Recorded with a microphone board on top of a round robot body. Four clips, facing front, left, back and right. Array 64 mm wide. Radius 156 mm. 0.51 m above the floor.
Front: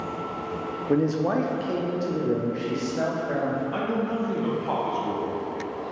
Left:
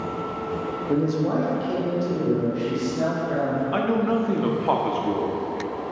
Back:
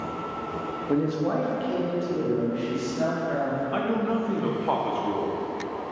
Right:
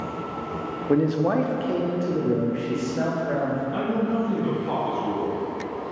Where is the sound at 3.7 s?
115° left, 1.1 m.